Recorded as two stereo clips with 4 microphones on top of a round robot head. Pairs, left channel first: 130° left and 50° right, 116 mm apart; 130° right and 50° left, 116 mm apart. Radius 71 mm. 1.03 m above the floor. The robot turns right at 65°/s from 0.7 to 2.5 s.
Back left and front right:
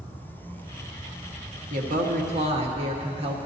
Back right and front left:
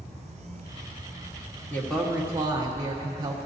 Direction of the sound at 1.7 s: 60° right.